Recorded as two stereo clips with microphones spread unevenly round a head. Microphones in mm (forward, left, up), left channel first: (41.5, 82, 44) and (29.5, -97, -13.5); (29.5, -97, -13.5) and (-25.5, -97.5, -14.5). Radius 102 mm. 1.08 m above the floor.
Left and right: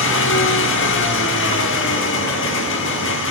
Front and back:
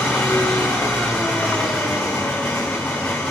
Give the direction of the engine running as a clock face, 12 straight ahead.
9 o'clock.